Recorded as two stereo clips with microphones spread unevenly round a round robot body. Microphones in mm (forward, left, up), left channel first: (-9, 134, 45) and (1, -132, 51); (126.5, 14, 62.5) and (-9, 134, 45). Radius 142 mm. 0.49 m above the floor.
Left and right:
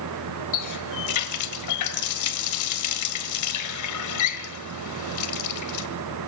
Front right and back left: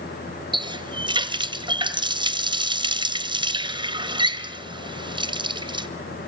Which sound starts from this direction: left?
A running tap, at 0.5 s.